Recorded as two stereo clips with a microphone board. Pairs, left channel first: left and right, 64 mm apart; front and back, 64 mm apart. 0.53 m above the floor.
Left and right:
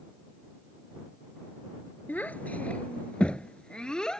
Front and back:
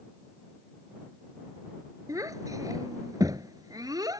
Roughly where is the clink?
No clink in this recording.